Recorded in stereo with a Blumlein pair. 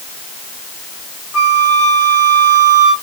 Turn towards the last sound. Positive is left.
turn(degrees=40)